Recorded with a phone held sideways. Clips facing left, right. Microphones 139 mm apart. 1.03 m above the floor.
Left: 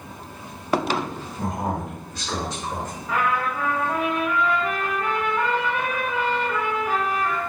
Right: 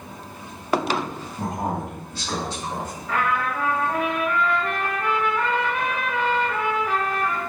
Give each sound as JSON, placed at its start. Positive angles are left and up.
{"t": 1.4, "sound": "a man speaking", "side_deg": -30, "distance_m": 1.3}
{"t": 3.1, "sound": "a trumpet", "side_deg": 5, "distance_m": 1.5}